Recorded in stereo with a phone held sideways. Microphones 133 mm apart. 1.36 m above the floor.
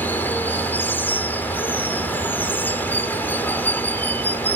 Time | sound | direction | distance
0.0 | running water | 15° left (ahead or behind) | ?